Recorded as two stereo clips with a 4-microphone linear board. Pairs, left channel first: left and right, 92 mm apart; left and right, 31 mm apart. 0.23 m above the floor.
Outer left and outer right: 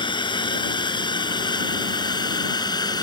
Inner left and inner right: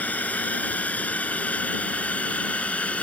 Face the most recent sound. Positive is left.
turn(degrees=50)  # may be behind; listen again after turning